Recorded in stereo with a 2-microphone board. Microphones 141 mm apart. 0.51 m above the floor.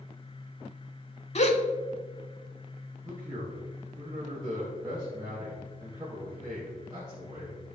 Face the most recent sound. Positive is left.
turn(degrees=-30)  # may be behind; listen again after turning